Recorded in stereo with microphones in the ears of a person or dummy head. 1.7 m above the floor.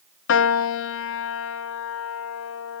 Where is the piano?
70° left (ahead or behind), 0.7 m.